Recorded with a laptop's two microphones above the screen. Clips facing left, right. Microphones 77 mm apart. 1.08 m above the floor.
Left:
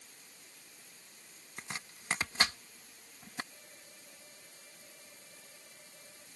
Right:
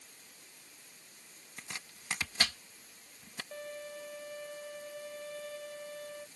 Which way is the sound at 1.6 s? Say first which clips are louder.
Left 3 dB; 30° left (ahead or behind).